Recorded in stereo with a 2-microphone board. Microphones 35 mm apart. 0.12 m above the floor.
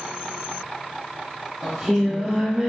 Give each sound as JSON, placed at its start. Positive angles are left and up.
{"t": 1.6, "sound": "singing", "side_deg": -10, "distance_m": 1.4}